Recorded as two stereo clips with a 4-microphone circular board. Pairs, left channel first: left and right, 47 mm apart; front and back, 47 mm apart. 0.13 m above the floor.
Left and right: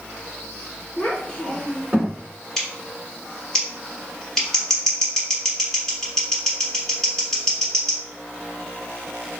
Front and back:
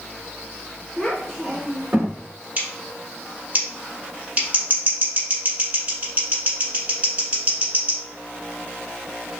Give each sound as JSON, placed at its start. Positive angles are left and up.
{"t": 1.0, "sound": "a child speaking", "azimuth_deg": 70, "distance_m": 1.5}
{"t": 2.6, "sound": "scissors", "azimuth_deg": 165, "distance_m": 1.3}